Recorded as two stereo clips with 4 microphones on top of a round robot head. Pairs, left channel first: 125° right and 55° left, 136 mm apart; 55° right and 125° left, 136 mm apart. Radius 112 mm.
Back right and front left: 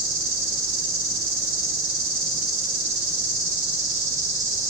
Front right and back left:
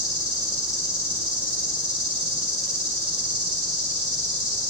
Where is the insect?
45° left, 4.5 m.